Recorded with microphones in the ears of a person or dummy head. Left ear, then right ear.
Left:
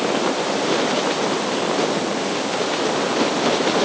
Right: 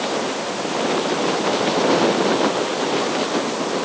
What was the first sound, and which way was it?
Only background noise.